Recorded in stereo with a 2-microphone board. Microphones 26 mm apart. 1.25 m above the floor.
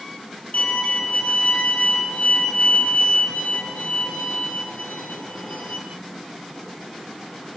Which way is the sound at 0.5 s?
80° left.